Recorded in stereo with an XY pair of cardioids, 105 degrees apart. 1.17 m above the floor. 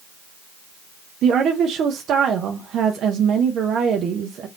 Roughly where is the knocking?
No knocking in this recording.